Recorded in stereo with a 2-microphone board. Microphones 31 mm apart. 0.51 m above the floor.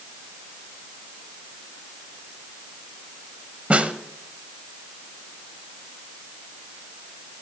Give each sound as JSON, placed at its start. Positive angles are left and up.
{"t": 3.7, "sound": "a snare drum", "side_deg": -40, "distance_m": 0.8}